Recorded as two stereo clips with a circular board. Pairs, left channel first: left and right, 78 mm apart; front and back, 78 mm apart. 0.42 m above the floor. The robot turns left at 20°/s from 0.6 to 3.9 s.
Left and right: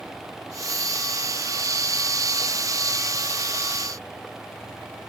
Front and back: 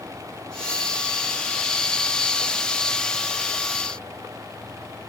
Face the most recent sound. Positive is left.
No sound to turn to.